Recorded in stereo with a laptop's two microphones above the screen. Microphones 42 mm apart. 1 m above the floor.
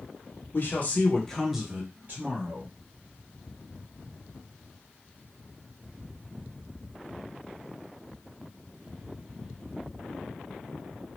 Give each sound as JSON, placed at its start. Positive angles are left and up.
{"t": 0.5, "sound": "a man speaking", "side_deg": 50, "distance_m": 1.2}